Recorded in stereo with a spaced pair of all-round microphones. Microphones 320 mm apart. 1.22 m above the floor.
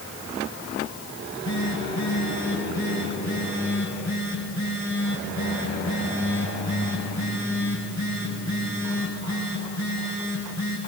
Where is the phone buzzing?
60° left (ahead or behind), 7 m.